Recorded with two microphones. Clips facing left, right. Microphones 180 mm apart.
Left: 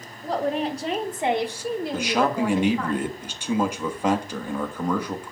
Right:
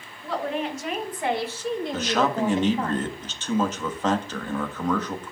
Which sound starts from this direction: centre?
A man speaking, at 1.9 s.